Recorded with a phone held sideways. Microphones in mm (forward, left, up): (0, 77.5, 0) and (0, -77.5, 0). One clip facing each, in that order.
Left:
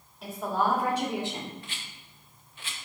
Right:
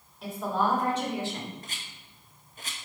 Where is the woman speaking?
Centre (ahead or behind), 3.5 m; by 1.5 s 30° left (ahead or behind), 1.8 m.